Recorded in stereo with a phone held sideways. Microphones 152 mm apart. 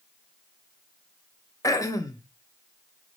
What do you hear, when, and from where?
1.6 s throat clearing: 20° left (ahead or behind), 0.5 m